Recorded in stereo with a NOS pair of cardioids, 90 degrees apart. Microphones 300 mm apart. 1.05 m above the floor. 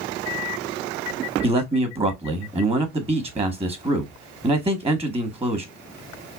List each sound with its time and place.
1.4 s a man speaking: 20° right, 1.6 m